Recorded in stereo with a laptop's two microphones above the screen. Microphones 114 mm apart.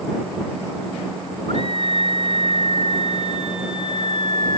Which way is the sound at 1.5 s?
60° left (ahead or behind).